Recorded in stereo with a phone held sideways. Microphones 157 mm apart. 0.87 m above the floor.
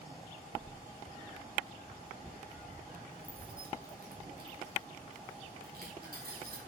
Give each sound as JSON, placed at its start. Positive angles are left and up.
{"t": 0.5, "sound": "keys jangling", "side_deg": -15, "distance_m": 1.6}